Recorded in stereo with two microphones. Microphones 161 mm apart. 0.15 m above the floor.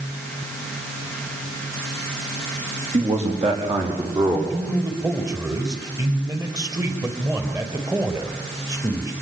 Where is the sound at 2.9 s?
50° right (ahead or behind), 8 m; by 4.4 s 35° right (ahead or behind), 7.5 m.